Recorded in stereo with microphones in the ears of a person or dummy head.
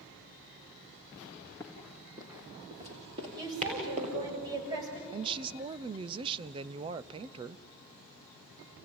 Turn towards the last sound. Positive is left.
turn(degrees=-25)  # may be behind; listen again after turning